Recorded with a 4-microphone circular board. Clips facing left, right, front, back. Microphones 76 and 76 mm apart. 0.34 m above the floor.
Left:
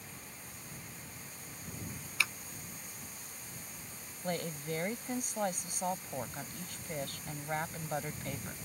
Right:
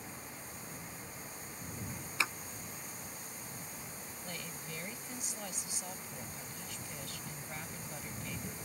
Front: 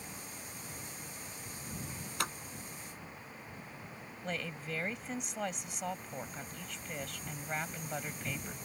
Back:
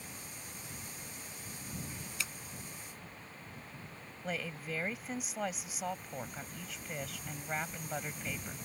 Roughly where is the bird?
No bird in this recording.